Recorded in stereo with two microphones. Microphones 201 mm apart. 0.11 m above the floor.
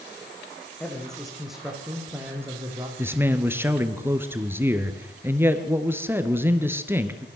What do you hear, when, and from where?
0.8 s a man speaking: 5° left (ahead or behind), 5.5 m; by 2.9 s 15° right (ahead or behind), 5 m
3.0 s a man speaking: 10° right (ahead or behind), 2 m